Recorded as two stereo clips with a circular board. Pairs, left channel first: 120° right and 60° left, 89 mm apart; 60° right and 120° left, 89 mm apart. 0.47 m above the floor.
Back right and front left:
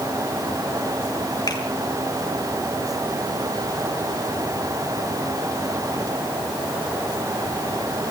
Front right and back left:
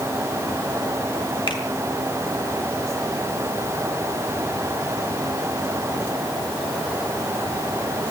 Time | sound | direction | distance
1.5 | a finger snap | 75° right | 4.5 m